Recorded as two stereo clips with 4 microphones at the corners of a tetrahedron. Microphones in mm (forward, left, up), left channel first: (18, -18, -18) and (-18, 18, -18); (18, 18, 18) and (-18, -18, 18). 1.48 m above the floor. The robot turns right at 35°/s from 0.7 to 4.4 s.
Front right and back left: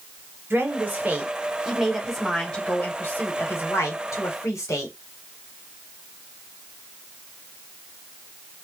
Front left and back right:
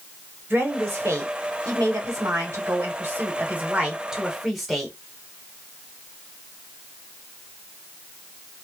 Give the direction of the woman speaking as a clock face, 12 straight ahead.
6 o'clock.